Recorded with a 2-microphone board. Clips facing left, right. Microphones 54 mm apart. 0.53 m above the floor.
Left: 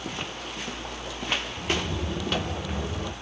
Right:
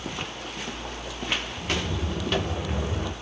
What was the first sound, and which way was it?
Footsteps, 25° left (ahead or behind).